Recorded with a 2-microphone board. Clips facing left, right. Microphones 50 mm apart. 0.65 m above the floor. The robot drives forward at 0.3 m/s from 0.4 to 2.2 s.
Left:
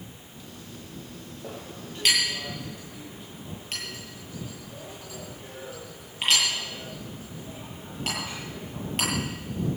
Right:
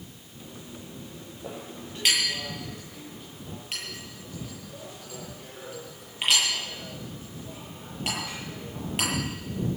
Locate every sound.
1.4 s a clink: 5° right (ahead or behind), 9.5 m